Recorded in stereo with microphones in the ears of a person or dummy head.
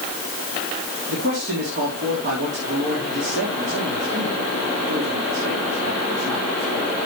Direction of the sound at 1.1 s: 60° right (ahead or behind).